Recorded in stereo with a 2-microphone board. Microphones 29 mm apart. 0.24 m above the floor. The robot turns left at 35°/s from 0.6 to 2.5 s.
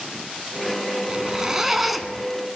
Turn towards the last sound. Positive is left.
turn(degrees=165)